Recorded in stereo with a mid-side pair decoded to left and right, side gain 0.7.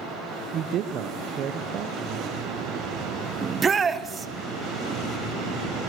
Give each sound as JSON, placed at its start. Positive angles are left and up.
{"t": 0.5, "sound": "a man speaking", "azimuth_deg": -45, "distance_m": 0.8}
{"t": 3.4, "sound": "a shout", "azimuth_deg": -25, "distance_m": 1.1}